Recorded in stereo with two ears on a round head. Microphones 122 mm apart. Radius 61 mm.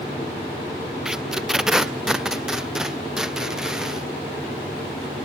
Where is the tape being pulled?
5° right (ahead or behind).